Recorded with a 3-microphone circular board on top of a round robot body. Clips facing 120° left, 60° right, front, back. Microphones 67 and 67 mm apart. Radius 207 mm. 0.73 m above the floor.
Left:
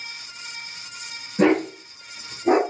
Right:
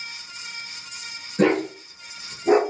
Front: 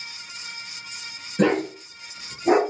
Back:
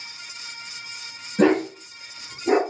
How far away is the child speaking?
No child speaking in this recording.